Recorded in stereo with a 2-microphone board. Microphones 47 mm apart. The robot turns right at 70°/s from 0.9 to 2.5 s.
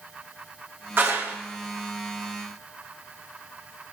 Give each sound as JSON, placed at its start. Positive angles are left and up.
{"t": 1.0, "sound": "a clap", "side_deg": -40, "distance_m": 2.5}